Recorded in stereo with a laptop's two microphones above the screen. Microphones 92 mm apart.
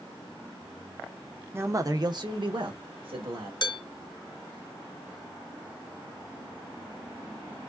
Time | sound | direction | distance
1.5 | a man speaking | 25° right (ahead or behind) | 0.5 m
3.6 | dishes clattering | 55° left (ahead or behind) | 2 m